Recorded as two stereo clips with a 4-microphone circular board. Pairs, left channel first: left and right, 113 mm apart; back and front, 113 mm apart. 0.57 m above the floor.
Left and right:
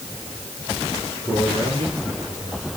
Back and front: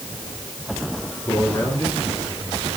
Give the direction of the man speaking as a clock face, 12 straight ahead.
4 o'clock.